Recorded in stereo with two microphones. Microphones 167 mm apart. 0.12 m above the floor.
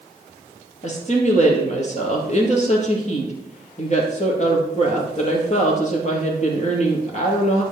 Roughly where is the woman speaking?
Left.